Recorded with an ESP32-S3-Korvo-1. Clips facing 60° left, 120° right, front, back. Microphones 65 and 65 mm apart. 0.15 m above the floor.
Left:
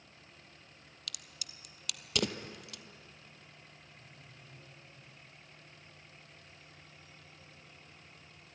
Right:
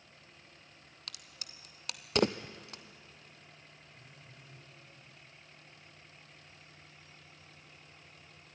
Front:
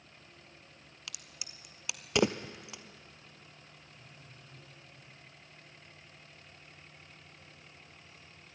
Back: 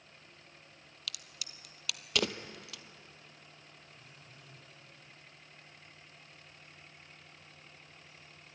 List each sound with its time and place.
1.1 s a crack: 70° right, 0.7 m
3.9 s a phone buzzing: 100° right, 6 m